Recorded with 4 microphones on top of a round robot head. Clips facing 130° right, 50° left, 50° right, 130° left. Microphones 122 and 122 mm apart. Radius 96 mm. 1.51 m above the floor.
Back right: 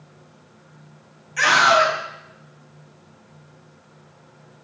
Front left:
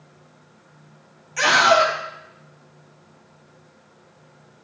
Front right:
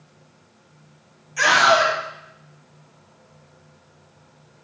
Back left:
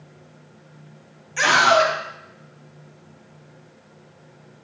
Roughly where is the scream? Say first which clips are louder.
Front left 1 dB, even; left.